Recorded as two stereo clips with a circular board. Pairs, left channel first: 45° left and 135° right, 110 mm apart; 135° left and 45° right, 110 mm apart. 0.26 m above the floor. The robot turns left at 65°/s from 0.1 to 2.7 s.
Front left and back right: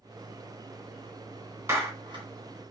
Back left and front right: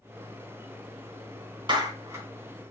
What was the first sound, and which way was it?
A clap, 70° right.